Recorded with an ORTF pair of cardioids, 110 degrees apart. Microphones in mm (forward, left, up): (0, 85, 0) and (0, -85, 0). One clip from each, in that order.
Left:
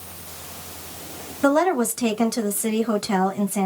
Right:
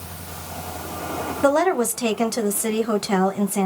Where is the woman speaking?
10° right, 1.0 m.